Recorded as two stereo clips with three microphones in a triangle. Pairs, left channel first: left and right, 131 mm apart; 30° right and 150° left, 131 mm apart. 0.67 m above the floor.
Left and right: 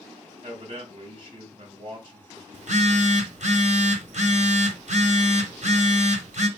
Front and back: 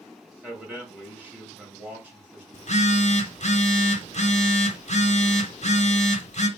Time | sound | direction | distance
0.4 | a man speaking | 135° right | 2 m
2.5 | a phone buzzing | 60° right | 0.7 m